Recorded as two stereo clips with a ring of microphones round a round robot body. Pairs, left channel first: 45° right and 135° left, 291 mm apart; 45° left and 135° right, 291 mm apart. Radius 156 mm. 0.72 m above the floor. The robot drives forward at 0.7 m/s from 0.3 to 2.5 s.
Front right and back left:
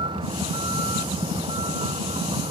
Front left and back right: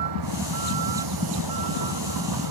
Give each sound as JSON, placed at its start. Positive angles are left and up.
{"t": 0.0, "sound": "a vehicle", "azimuth_deg": -150}